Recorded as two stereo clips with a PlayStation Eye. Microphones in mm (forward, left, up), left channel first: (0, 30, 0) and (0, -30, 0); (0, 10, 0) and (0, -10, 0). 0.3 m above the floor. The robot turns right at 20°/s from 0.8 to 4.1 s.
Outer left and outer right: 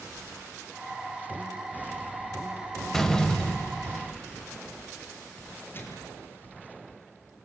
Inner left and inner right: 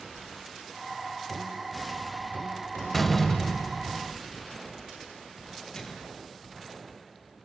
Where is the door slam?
5° left (ahead or behind), 1.0 m; by 4.2 s 20° left (ahead or behind), 1.0 m.